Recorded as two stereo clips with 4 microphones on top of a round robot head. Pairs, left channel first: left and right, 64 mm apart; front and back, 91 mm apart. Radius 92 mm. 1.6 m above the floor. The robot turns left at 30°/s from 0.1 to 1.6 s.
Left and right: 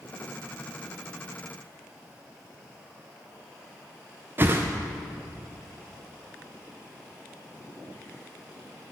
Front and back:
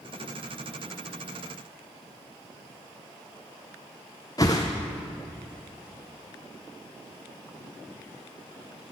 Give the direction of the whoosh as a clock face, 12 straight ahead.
2 o'clock.